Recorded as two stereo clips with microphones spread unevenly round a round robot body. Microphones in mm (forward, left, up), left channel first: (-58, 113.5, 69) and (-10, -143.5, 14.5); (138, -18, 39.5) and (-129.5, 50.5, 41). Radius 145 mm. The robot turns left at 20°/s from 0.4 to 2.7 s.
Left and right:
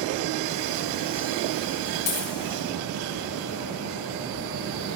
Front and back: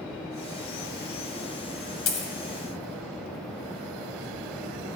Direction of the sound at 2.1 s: 30° left.